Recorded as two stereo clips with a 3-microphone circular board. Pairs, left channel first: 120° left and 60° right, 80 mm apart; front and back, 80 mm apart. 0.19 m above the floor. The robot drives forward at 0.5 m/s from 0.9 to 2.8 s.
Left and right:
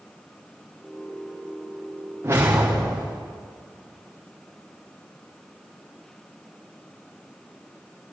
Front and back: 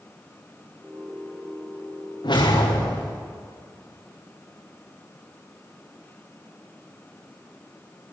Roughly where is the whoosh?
Ahead.